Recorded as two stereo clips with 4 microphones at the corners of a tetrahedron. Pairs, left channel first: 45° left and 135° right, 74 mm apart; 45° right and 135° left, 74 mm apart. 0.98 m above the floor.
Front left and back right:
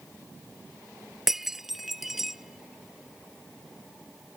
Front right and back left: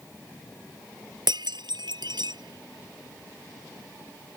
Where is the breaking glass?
140° left.